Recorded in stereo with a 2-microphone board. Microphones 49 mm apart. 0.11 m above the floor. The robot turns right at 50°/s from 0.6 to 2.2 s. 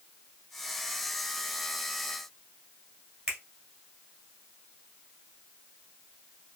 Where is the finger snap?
20° right (ahead or behind), 1.5 m.